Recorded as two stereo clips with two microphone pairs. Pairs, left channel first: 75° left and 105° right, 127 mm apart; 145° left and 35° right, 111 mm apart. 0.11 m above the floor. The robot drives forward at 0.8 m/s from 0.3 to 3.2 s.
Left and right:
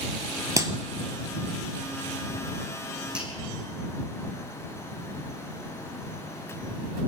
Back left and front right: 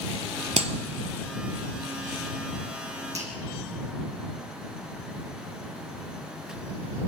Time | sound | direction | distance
0.6 | a clap | 45° right | 1.7 m
3.1 | a finger snap | 25° right | 6 m